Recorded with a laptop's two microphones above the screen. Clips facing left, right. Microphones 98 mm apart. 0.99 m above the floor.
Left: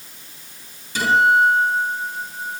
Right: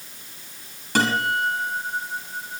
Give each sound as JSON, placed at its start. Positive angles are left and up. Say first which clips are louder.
{"t": 0.9, "sound": "a guitar", "louder": "left 6 dB", "side_deg": -70, "distance_m": 7.5}